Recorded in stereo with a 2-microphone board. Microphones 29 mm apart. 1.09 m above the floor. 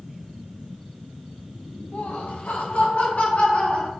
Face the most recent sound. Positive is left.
turn(degrees=50)  # may be behind; listen again after turning